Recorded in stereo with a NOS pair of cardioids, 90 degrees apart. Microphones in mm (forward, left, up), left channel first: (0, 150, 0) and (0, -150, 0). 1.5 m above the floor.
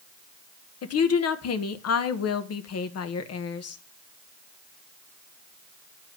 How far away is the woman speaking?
About 1.2 m.